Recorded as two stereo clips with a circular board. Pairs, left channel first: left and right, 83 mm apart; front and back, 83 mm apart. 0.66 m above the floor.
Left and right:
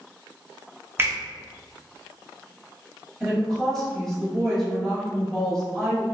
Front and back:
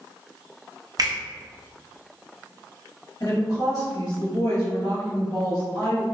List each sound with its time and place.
1.0 s a finger snap: 150° right, 0.7 m
3.2 s a woman speaking: 5° left, 1.4 m